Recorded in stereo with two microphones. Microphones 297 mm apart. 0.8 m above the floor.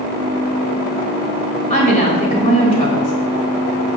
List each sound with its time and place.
1.7 s a woman speaking: 25° left (ahead or behind), 3 m